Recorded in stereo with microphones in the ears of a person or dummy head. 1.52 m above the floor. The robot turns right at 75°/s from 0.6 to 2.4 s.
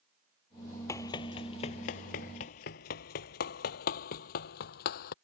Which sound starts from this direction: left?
Running footsteps, at 0.9 s.